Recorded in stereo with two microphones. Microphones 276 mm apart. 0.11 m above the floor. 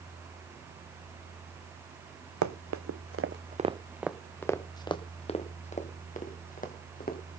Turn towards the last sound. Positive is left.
turn(degrees=30)  # may be behind; listen again after turning